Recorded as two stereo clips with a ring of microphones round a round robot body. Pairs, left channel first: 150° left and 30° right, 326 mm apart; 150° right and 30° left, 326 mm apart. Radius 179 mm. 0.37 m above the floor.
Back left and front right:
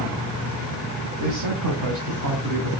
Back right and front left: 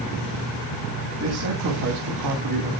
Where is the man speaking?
15° right, 3 m; by 2.7 s 15° left, 3.5 m.